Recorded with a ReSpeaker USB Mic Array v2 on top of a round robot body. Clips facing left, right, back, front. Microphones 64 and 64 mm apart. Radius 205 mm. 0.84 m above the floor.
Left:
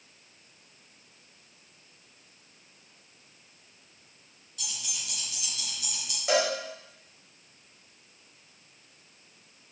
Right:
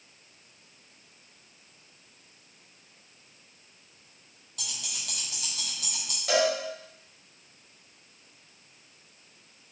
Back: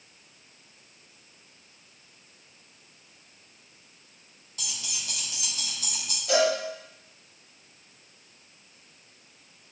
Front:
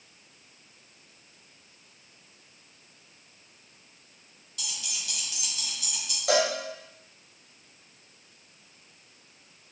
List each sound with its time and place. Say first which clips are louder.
4.6 s keys jangling: right 1 dB, back 1 dB; 125° right, 3 m; by 6.2 s 135° right, 3.5 m
6.3 s a cowbell: right 1 dB, back 2 dB; 20° left, 2.5 m